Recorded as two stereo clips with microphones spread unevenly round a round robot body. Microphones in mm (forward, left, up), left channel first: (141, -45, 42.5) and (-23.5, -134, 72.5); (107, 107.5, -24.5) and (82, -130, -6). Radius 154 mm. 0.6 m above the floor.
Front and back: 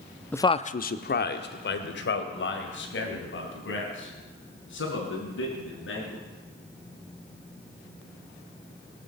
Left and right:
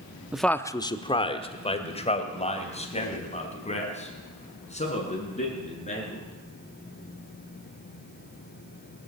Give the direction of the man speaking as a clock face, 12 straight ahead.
12 o'clock.